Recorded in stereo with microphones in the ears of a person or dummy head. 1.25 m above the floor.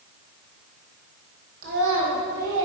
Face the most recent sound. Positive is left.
turn(degrees=-70)  # may be behind; listen again after turning